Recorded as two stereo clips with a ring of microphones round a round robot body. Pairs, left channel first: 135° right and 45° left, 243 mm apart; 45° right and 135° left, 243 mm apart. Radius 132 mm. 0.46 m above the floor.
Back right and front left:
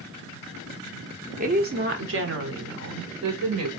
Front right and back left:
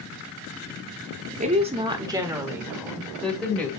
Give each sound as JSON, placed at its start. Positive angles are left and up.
{"t": 1.4, "sound": "a woman speaking", "azimuth_deg": 90, "distance_m": 1.1}